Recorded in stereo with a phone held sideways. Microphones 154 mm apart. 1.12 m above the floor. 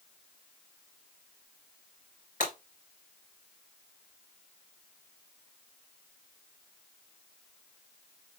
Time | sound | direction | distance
2.4 | breaking glass | 55° left (ahead or behind) | 3 m